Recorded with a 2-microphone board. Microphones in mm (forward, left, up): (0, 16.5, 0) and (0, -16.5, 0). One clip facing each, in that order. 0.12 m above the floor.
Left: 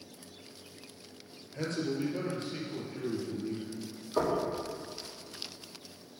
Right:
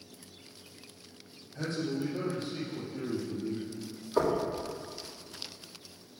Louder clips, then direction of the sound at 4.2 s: Right 2 dB; centre (ahead or behind).